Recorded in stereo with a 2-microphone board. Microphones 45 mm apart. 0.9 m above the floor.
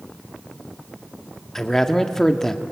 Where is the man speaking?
10° left (ahead or behind), 1.5 m.